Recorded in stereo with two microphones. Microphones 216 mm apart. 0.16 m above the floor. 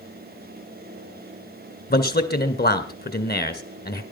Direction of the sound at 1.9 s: 45° left (ahead or behind).